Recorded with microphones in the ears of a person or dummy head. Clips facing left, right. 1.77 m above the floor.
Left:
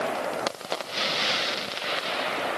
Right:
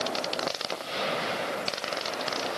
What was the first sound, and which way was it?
Only background noise.